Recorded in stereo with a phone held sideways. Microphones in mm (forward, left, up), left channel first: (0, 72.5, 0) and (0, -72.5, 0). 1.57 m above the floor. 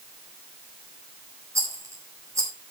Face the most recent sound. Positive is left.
turn(degrees=-20)  # may be behind; listen again after turning